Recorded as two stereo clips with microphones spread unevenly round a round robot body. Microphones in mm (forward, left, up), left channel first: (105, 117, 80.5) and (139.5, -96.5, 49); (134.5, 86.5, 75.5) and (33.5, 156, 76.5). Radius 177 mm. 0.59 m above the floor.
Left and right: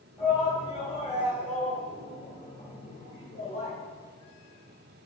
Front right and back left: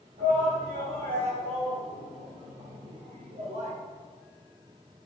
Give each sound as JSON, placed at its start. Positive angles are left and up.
{"t": 0.2, "sound": "a shout", "azimuth_deg": -170, "distance_m": 3.0}